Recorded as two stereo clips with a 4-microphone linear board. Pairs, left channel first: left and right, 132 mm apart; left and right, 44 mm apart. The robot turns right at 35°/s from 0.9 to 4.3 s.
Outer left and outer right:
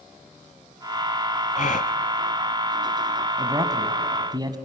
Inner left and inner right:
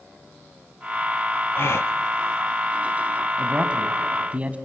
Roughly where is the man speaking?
Behind right.